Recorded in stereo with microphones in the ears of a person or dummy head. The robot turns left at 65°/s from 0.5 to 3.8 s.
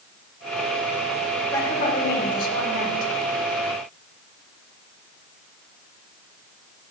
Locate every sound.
1.5 s a woman speaking: 165° left, 4 m; by 3.1 s 65° left, 4 m